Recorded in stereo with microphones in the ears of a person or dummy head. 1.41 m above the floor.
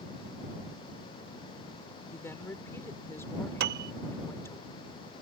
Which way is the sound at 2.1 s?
15° left (ahead or behind).